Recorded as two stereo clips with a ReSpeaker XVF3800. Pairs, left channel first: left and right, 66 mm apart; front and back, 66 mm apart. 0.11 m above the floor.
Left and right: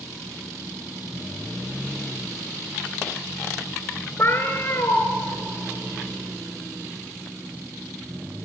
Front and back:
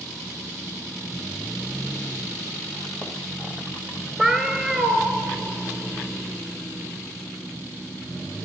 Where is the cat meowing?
100° left, 0.9 m.